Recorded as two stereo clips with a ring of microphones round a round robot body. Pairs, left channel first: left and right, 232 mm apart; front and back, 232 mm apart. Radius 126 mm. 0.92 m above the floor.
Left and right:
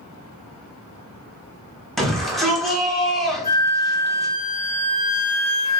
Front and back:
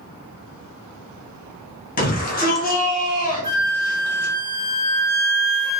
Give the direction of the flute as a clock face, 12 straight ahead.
4 o'clock.